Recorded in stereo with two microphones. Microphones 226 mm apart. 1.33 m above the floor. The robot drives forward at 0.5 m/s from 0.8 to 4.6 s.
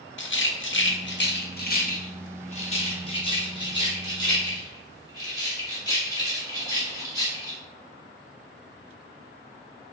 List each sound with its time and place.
0.2 s a rattle: 60° left (ahead or behind), 0.7 m; by 7.6 s 15° left (ahead or behind), 2 m